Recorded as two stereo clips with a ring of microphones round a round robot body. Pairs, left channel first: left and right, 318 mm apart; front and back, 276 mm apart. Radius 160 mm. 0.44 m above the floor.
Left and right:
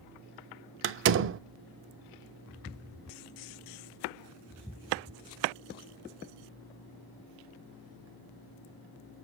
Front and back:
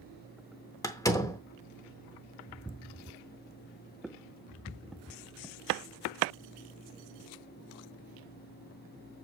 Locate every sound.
0.8 s a door slam: 75° right, 0.6 m